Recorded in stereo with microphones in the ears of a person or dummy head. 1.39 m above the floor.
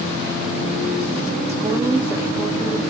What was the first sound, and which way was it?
A woman speaking, 35° right (ahead or behind).